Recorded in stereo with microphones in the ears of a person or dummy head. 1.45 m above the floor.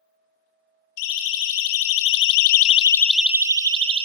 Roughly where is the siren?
Left.